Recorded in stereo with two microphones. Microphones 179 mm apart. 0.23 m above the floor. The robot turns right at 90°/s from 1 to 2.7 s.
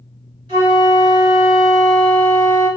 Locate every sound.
0.5 s a flute: 25° right (ahead or behind), 1.7 m; by 2.7 s 25° left (ahead or behind), 1.7 m